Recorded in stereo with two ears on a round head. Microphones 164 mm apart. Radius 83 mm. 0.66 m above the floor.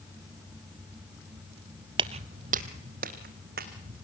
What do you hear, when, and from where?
2.0 s footsteps: 25° right (ahead or behind), 0.7 m; by 3.9 s 55° right (ahead or behind), 3 m